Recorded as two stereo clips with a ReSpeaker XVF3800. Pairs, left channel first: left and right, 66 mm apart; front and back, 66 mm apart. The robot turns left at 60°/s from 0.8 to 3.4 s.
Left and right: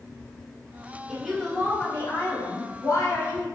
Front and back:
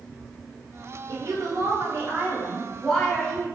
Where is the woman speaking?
170° right, 1.3 m; by 3.5 s 50° left, 1.3 m.